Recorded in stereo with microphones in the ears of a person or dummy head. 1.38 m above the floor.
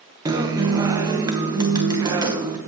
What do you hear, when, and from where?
0.2 s a guitar: 25° right (ahead or behind), 0.9 m